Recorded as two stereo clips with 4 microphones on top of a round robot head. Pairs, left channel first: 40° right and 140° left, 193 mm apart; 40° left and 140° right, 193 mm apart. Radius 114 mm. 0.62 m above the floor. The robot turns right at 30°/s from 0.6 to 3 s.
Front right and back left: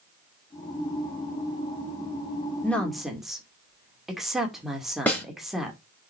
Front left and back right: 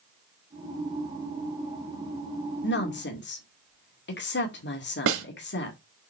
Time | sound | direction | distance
2.6 | a woman speaking | 40° left | 2 m
5.1 | a snare drum | 125° right | 2.5 m